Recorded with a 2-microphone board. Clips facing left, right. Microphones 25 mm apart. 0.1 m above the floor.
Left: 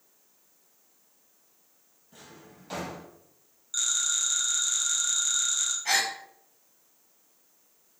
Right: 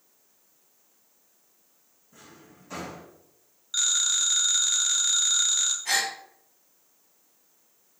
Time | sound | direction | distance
2.1 | a drawer | 65° left (ahead or behind) | 1.8 m
3.7 | a phone ringing | 30° right (ahead or behind) | 0.8 m
5.8 | a gasp | 35° left (ahead or behind) | 1.5 m